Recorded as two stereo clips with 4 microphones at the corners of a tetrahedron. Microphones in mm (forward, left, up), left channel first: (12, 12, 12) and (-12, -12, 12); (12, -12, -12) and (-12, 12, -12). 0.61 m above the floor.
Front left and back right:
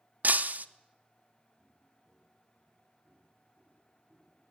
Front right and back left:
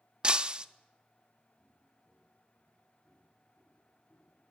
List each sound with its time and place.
0.2 s breaking glass: 165° right, 0.7 m
1.6 s footsteps: 85° right, 9 m; by 4.4 s 95° right, 12.5 m